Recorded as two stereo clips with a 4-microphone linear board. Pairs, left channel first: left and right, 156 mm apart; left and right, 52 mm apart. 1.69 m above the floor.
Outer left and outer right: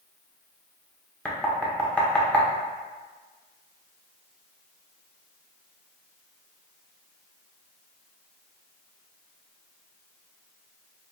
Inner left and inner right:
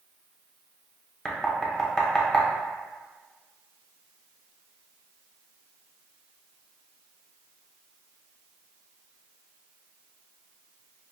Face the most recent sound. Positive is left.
turn(degrees=5)  # may be behind; listen again after turning